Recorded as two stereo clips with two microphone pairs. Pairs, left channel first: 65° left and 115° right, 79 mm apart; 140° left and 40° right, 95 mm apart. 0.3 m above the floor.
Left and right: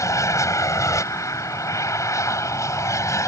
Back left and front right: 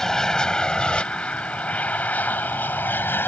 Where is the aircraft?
60° left; by 3.3 s 85° left.